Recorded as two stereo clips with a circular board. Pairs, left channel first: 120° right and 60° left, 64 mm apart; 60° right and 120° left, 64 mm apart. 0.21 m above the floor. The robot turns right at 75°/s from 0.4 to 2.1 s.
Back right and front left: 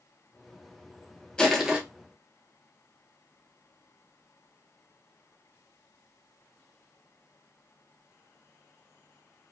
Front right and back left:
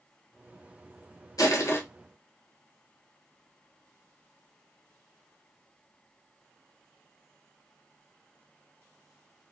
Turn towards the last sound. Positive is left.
turn(degrees=10)